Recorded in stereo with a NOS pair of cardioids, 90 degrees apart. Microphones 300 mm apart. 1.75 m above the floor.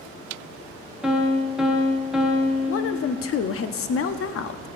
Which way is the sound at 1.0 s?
Straight ahead.